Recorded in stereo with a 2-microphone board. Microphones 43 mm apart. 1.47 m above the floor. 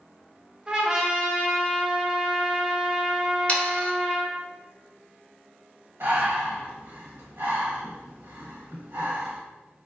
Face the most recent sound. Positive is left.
turn(degrees=-60)  # may be behind; listen again after turning